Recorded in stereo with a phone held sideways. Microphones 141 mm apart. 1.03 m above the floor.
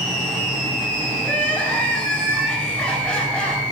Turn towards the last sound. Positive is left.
turn(degrees=5)  # may be behind; listen again after turning